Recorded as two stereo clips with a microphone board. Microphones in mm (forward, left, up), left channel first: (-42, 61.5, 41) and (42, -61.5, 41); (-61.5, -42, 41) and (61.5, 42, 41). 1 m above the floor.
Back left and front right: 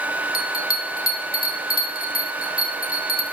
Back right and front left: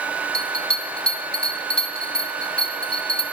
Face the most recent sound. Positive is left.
turn(degrees=130)